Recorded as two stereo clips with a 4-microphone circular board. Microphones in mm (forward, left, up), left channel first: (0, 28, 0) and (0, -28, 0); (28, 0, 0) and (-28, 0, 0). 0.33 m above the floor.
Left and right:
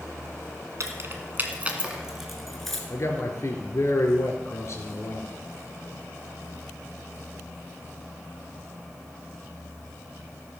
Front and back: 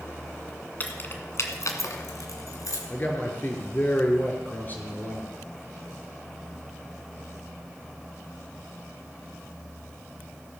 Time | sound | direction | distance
0.8 | keys jangling | 60° right | 1.9 m
2.9 | a man speaking | 55° left | 4.5 m